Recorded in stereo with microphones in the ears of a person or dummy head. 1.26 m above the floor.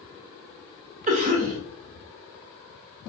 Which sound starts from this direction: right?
A cough, at 1.1 s.